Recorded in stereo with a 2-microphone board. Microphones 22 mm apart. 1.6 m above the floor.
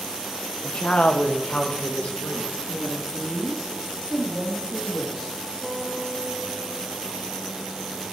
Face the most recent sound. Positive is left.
turn(degrees=5)  # may be behind; listen again after turning